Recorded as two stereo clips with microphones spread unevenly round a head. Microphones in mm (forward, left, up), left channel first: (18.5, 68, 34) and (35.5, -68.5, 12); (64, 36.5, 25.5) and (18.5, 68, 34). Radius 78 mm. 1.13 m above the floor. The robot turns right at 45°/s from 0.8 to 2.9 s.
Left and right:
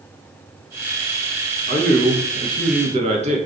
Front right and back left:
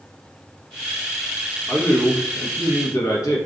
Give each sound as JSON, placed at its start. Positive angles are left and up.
{"t": 1.7, "sound": "a man speaking", "azimuth_deg": -100, "distance_m": 0.8}